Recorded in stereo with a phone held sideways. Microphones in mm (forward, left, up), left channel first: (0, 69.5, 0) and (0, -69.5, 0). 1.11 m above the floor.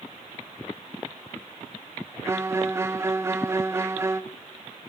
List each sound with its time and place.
2.2 s a violin: 20° right (ahead or behind), 0.6 m